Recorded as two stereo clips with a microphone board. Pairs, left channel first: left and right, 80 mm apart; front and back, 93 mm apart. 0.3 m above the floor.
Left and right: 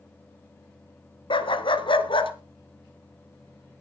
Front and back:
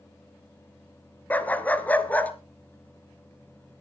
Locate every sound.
1.3 s a dog barking: 75° left, 1.0 m